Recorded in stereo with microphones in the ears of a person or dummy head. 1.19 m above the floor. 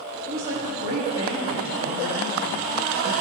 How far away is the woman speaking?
About 2.5 m.